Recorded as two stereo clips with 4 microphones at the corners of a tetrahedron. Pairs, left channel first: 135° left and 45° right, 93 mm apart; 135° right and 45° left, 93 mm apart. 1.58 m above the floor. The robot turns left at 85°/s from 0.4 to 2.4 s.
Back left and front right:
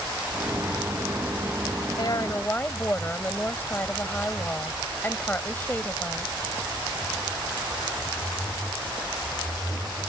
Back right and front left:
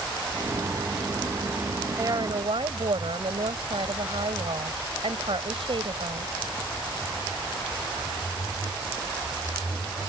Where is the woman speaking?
100° left; by 6.3 s 65° left.